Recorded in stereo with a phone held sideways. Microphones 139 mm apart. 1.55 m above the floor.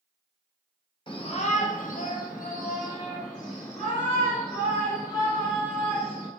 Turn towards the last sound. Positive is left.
turn(degrees=50)  # may be behind; listen again after turning